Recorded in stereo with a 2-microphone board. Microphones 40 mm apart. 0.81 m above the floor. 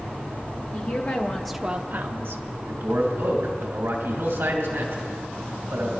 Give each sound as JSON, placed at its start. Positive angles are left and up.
{"t": 0.7, "sound": "a woman speaking", "side_deg": 65, "distance_m": 1.4}
{"t": 2.7, "sound": "a man speaking", "side_deg": -65, "distance_m": 2.5}